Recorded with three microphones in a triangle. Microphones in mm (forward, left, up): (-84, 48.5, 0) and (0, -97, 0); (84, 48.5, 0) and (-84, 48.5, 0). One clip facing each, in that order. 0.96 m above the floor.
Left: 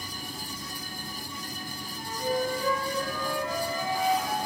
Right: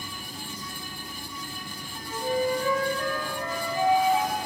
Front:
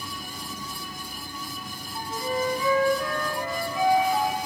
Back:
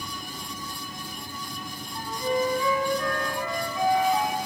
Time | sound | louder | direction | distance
1.9 | a flute | right 2 dB, back 2 dB | 70° right | 3.5 m